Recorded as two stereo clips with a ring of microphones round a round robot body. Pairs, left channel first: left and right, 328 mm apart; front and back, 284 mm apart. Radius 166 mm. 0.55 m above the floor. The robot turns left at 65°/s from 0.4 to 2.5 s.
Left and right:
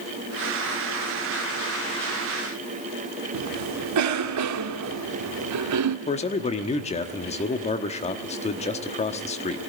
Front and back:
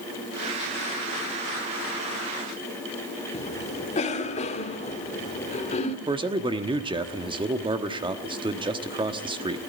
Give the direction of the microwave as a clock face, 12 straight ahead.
I don't hear a microwave.